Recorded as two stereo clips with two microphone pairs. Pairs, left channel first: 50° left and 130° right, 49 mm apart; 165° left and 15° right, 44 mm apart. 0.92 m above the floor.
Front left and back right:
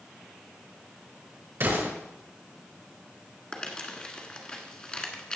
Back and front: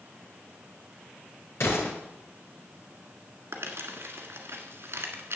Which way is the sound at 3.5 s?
15° right.